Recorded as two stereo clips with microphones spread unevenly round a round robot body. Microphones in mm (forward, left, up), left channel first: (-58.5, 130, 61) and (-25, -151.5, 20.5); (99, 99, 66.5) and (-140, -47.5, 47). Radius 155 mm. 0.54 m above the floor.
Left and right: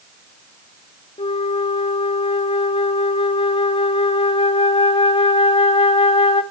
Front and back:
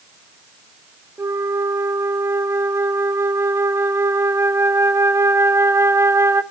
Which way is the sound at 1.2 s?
160° left.